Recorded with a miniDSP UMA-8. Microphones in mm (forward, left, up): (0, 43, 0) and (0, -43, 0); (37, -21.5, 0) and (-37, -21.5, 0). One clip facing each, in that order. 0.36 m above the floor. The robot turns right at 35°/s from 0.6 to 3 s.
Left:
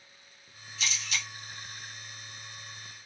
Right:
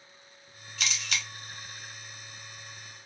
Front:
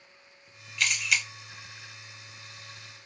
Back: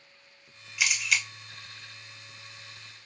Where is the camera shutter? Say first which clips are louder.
Right 1 dB, even; 105° right, 0.9 m; by 1.2 s 85° right, 0.9 m.